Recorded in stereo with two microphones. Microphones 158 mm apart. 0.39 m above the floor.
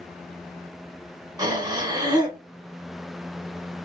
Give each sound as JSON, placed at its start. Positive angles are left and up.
{"t": 1.4, "sound": "breathing", "side_deg": -30, "distance_m": 1.7}